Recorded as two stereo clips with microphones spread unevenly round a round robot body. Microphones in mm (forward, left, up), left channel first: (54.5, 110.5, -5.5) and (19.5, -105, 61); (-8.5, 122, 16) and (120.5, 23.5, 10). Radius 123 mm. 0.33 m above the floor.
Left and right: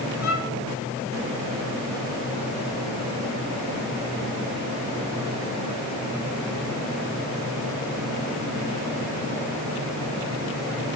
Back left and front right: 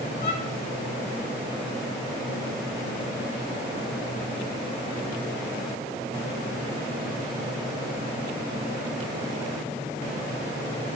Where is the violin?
125° left, 5 m.